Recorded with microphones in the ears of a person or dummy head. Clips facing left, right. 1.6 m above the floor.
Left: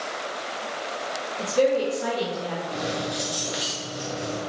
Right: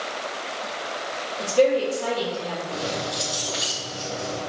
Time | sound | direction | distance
1.4 | a woman speaking | 25° left (ahead or behind) | 3.5 m
2.7 | keys jangling | 20° left (ahead or behind) | 2.0 m